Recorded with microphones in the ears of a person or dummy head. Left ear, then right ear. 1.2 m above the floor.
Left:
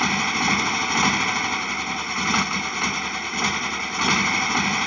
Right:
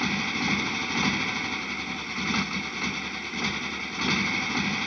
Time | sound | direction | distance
0.0 | a motorcycle | 40° left (ahead or behind) | ?